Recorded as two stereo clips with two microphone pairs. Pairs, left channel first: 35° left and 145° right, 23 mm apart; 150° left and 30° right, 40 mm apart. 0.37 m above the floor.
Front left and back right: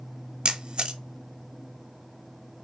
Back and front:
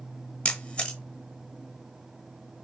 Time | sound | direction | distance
0.5 | a camera shutter | 155° right | 0.8 m